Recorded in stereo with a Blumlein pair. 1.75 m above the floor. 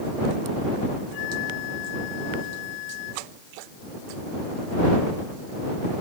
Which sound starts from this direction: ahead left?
A flute, at 1.1 s.